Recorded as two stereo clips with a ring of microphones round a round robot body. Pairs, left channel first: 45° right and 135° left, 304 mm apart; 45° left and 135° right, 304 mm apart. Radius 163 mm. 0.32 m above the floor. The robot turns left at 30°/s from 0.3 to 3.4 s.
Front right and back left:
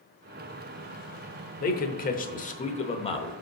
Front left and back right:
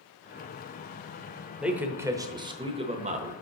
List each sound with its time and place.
1.6 s a man speaking: 50° right, 0.9 m; by 3.3 s 100° right, 0.9 m